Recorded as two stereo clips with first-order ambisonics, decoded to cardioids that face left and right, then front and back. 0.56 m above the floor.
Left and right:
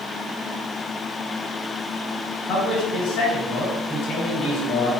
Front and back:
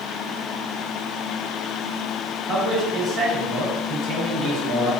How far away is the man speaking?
About 1.6 m.